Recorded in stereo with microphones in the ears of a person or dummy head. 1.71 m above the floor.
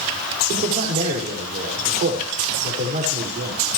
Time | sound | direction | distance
0.5 | a man speaking | 45° right (ahead or behind) | 7 m